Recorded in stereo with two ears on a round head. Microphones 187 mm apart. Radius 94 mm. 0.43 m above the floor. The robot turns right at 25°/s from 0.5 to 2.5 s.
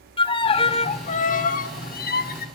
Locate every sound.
0.2 s a violin: 35° left, 0.6 m; by 2.5 s 85° left, 0.6 m